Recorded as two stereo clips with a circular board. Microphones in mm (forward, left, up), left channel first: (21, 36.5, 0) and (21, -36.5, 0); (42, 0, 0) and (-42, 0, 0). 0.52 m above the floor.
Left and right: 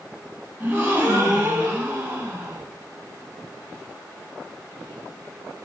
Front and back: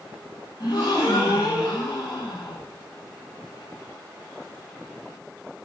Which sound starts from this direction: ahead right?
A gasp, at 0.6 s.